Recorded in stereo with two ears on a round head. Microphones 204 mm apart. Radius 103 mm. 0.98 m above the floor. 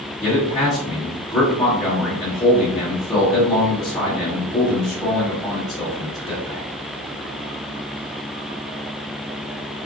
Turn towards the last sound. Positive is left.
turn(degrees=15)  # may be behind; listen again after turning